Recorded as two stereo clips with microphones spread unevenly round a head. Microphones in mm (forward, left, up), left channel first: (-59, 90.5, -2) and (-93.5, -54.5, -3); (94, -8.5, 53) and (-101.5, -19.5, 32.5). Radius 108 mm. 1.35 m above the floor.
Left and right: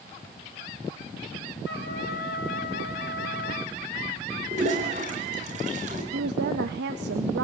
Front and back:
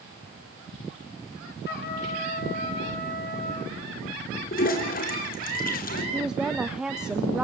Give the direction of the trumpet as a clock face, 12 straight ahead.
10 o'clock.